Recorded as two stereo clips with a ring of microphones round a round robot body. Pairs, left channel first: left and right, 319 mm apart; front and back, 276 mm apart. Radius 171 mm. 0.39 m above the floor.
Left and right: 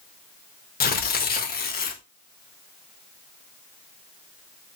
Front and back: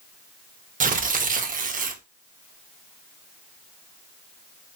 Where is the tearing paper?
135° left, 0.6 m.